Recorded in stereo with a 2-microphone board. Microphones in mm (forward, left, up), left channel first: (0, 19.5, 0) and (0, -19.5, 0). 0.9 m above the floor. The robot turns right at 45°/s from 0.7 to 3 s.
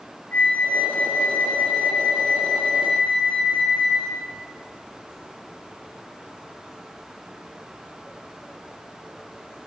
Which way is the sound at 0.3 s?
45° left.